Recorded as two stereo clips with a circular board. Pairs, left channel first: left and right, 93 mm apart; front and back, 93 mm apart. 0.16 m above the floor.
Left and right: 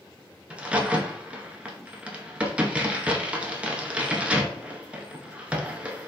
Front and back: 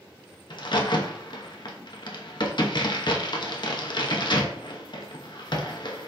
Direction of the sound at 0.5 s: 15° right.